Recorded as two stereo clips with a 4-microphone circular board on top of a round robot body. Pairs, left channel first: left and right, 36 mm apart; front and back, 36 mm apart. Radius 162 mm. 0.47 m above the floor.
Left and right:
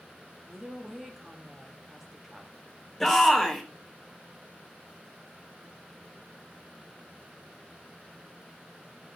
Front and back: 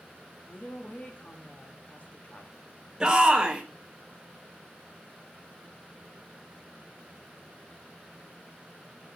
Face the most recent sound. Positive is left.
turn(degrees=165)